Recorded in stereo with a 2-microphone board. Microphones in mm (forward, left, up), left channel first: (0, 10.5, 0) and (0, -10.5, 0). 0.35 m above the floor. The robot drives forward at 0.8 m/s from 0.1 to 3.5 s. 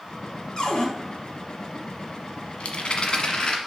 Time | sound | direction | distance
0.6 | a cupboard door | 35° left (ahead or behind) | 1.6 m
2.6 | a rattle | 70° left (ahead or behind) | 1.0 m